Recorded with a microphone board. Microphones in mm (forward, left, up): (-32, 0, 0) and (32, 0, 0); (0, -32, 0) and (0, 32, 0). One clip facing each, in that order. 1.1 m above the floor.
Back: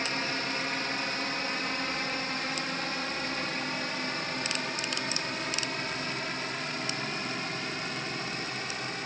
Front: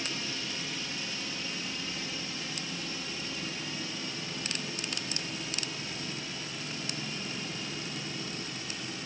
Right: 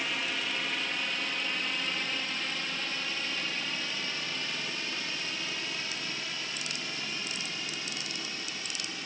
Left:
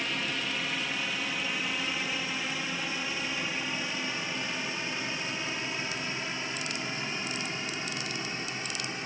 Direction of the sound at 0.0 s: Straight behind.